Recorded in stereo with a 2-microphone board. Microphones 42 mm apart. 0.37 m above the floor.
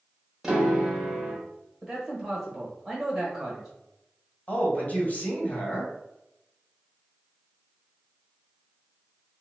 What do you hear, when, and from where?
0.4 s a piano: 10° right (ahead or behind), 1.1 m
1.8 s a man speaking: 10° right (ahead or behind), 1.2 m
4.5 s a man speaking: 40° left (ahead or behind), 1.6 m